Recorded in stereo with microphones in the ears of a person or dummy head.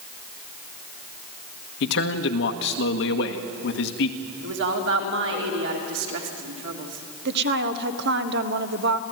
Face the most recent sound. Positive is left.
turn(degrees=-60)  # may be behind; listen again after turning